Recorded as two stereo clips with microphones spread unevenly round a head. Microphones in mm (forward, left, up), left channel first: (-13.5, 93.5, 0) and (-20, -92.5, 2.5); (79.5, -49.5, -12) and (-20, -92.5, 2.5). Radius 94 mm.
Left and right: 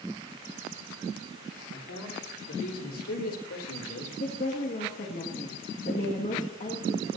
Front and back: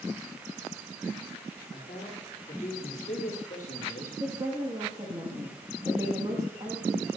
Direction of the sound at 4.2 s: 135° left.